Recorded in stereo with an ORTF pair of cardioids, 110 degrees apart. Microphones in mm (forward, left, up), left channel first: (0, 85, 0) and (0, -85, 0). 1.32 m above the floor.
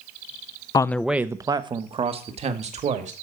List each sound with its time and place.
0.7 s a man speaking: 25° left, 0.6 m; by 3.1 s 45° right, 2.5 m